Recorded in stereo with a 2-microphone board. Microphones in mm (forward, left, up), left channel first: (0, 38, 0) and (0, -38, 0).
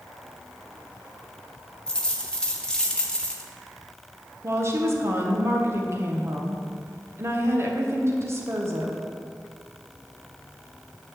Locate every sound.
1.9 s a dropped coin: 10° left (ahead or behind), 1.1 m
4.4 s a woman speaking: 35° right (ahead or behind), 1.4 m